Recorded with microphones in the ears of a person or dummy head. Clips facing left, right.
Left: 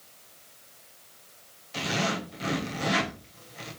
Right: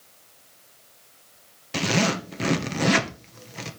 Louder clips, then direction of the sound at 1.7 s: Right 6 dB; 80° right.